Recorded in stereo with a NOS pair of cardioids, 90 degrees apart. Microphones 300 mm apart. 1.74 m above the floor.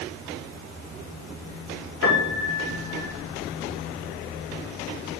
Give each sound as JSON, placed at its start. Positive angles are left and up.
{"t": 2.0, "sound": "a piano", "azimuth_deg": 45, "distance_m": 2.5}